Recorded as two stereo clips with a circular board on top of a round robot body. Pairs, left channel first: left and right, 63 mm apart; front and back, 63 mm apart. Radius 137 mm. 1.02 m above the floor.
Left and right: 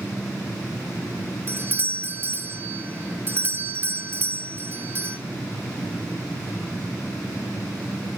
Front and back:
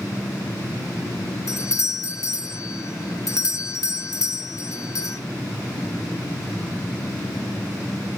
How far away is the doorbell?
About 2 m.